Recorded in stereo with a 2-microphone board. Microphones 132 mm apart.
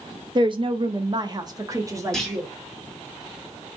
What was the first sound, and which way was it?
A woman speaking, 35° right (ahead or behind).